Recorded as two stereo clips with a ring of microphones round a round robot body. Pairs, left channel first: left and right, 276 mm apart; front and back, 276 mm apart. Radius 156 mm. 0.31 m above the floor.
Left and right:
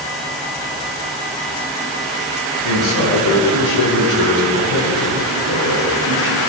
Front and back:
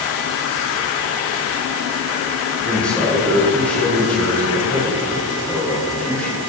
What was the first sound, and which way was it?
A man speaking, 85° left.